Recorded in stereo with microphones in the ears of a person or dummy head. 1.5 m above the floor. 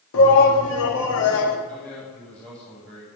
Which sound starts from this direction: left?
A shout, at 0.1 s.